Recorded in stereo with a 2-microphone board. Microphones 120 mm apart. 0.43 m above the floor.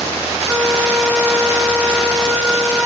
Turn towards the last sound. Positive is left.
turn(degrees=0)  # may be behind; listen again after turning